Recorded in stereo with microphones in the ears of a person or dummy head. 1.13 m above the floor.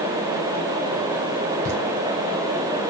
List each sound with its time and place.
1.6 s laughter: 45° right (ahead or behind), 5.5 m